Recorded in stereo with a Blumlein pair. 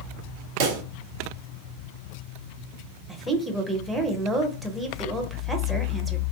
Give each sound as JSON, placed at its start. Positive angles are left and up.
{"t": 0.6, "sound": "a pop", "azimuth_deg": -45, "distance_m": 0.6}
{"t": 3.1, "sound": "a woman speaking", "azimuth_deg": -5, "distance_m": 0.7}